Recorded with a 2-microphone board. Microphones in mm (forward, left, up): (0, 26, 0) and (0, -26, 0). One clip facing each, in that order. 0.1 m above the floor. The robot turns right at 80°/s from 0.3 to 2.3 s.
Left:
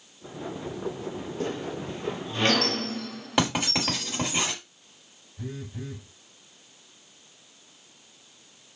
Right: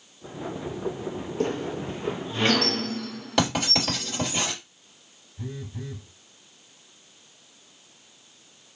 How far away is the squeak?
About 0.7 m.